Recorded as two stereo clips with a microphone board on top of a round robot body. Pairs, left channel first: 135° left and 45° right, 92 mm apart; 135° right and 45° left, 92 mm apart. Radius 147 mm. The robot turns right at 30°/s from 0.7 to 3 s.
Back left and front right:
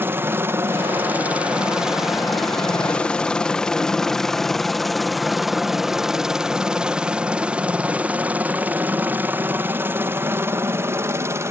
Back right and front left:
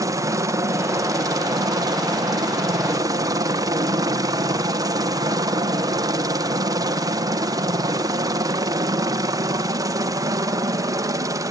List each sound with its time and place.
0.0 s a helicopter: 15° left; by 11.5 s 5° left